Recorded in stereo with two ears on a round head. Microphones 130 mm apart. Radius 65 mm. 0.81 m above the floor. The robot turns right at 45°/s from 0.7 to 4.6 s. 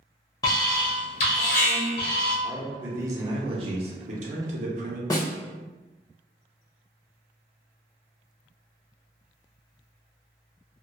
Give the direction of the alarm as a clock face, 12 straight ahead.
11 o'clock.